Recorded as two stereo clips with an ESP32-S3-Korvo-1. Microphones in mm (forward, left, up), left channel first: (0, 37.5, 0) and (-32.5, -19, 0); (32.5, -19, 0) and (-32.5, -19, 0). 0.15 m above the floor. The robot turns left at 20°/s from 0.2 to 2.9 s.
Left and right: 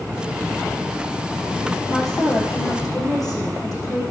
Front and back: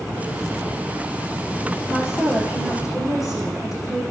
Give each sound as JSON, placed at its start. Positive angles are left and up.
{"t": 1.9, "sound": "a woman speaking", "azimuth_deg": 50, "distance_m": 7.5}